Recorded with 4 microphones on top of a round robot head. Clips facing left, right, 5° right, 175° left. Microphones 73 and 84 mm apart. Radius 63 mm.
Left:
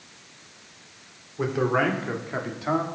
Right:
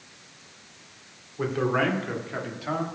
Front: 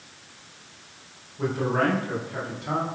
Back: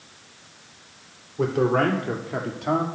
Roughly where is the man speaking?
Behind.